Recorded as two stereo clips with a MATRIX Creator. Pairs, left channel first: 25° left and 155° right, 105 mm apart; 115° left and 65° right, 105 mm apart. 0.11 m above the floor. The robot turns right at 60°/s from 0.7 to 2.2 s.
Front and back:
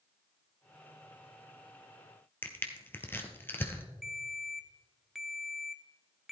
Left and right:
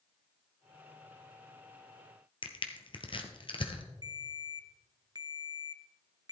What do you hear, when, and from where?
2.4 s crushing: 90° left, 1.2 m
4.0 s a ringtone: 75° right, 0.7 m